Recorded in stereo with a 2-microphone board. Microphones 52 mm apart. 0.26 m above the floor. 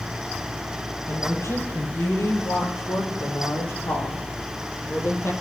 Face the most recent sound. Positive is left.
turn(degrees=55)  # may be behind; listen again after turning